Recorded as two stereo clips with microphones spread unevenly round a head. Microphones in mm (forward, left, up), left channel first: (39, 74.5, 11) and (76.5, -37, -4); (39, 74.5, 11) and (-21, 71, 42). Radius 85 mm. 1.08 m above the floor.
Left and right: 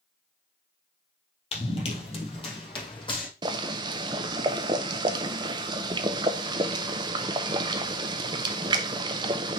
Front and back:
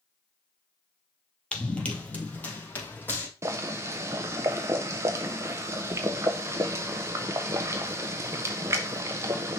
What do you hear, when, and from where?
1.5 s running footsteps: 95° left, 1.9 m; by 3.3 s 70° left, 2.5 m
3.4 s boiling: 110° right, 0.5 m